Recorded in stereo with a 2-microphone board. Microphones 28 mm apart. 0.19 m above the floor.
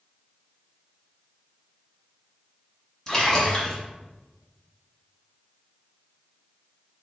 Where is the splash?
20° left (ahead or behind), 1.2 m.